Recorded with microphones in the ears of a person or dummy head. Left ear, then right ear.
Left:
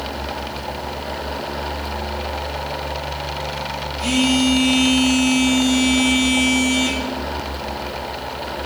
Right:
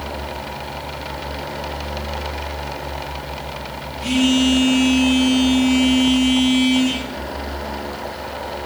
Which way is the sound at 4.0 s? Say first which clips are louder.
Right 1 dB; 75° left (ahead or behind).